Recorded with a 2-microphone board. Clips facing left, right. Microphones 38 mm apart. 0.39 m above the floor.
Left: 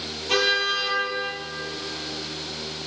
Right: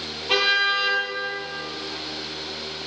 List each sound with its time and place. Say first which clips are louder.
0.3 s a car horn: right 2 dB; 20° right (ahead or behind), 6.5 m